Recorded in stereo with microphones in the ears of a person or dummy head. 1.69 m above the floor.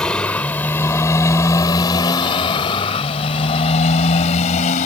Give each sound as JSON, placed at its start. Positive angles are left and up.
{"t": 0.0, "sound": "a motorcycle", "side_deg": 10}